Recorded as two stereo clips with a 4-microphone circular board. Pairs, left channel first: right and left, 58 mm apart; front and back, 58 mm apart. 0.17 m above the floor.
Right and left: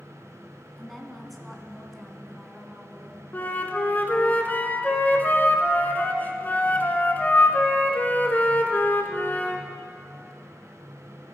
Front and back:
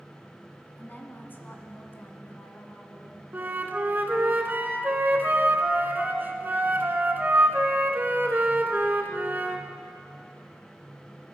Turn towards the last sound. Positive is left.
turn(degrees=-135)